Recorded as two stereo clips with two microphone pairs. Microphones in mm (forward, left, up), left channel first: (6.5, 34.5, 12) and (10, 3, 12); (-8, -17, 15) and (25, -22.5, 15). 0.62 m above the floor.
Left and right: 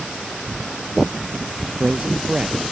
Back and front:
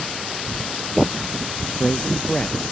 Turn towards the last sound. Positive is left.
turn(degrees=-130)